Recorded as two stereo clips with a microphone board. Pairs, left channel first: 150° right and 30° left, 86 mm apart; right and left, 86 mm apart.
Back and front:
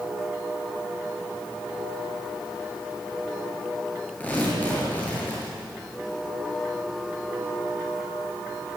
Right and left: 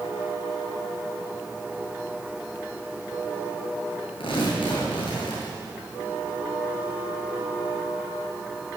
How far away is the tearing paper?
About 8.5 m.